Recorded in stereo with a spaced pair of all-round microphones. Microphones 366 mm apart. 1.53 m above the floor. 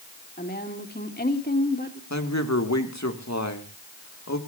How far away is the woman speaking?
About 3 m.